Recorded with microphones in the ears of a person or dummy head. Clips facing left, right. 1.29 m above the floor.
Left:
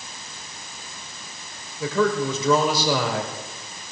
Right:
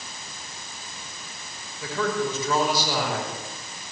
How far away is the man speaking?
About 6.5 m.